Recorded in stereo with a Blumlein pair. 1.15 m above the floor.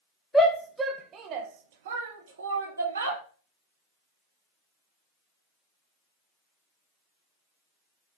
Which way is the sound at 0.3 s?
10° left.